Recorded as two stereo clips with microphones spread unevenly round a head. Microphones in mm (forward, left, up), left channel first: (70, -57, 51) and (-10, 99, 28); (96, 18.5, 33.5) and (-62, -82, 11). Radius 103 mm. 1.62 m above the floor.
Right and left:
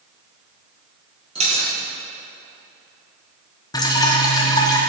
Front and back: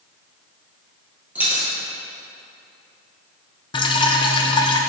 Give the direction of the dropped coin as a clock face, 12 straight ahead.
8 o'clock.